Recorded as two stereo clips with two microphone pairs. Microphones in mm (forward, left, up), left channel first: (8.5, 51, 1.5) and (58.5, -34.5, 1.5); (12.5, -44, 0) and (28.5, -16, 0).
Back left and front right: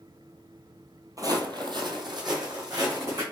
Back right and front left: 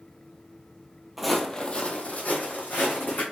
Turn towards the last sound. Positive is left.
turn(degrees=-105)